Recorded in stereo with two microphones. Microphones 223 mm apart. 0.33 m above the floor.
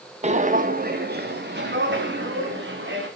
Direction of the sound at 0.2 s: 30° right (ahead or behind).